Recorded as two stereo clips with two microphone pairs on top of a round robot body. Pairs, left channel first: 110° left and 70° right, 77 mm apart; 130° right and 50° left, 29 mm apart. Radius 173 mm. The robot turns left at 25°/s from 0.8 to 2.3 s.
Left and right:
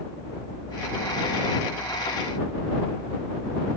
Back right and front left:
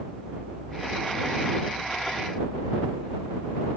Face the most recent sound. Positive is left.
No sound to turn to.